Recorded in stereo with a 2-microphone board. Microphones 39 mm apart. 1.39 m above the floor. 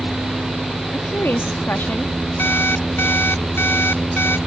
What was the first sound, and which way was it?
A woman speaking, 80° left.